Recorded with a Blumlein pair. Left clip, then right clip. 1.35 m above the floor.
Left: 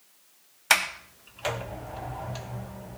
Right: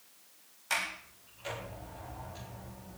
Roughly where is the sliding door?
Ahead left.